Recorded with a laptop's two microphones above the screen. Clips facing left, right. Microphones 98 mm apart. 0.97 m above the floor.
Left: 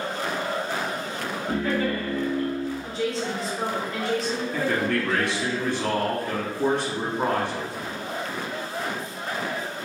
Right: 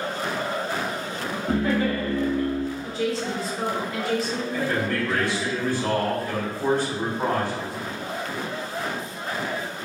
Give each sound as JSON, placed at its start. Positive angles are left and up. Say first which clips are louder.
{"t": 1.5, "sound": "laughter", "louder": "right 2 dB", "side_deg": -25, "distance_m": 1.3}
{"t": 2.8, "sound": "a woman speaking", "louder": "right 1 dB", "side_deg": 0, "distance_m": 1.1}
{"t": 4.5, "sound": "a man speaking", "louder": "left 1 dB", "side_deg": 70, "distance_m": 1.0}